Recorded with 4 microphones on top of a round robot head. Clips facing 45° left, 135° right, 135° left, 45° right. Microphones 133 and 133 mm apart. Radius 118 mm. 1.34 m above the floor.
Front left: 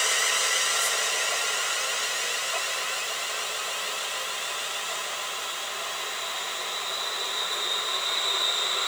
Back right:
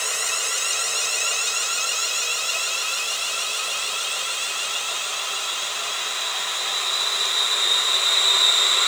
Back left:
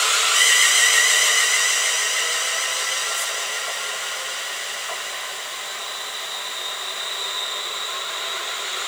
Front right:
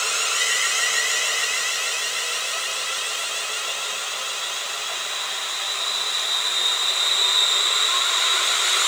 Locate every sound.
Only background noise.